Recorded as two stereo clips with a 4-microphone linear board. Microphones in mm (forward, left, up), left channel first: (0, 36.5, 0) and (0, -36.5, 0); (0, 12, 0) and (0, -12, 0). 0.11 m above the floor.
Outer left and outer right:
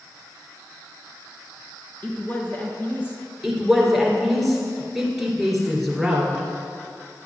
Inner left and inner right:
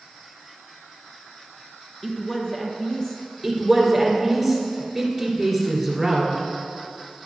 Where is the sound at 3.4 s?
Centre (ahead or behind), 2 m.